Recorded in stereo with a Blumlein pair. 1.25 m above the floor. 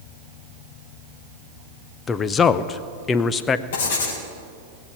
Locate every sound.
2.1 s a man speaking: 20° left, 0.7 m
3.7 s writing: 55° left, 3.5 m